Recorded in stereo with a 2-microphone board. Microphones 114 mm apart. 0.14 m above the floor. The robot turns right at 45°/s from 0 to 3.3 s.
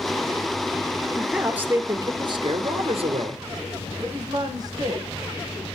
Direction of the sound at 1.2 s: Straight behind.